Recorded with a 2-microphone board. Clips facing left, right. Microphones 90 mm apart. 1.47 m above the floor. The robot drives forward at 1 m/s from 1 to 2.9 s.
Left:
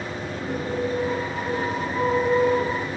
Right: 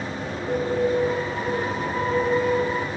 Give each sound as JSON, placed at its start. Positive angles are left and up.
{"t": 0.3, "sound": "a bird", "side_deg": -60, "distance_m": 2.0}